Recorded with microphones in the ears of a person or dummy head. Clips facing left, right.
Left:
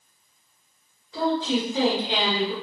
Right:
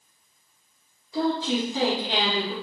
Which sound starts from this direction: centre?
A woman speaking, at 1.1 s.